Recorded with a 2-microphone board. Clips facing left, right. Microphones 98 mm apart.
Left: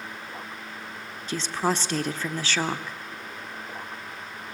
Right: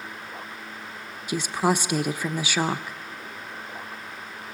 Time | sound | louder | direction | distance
1.3 | a woman speaking | right 3 dB | 10° right (ahead or behind) | 0.8 m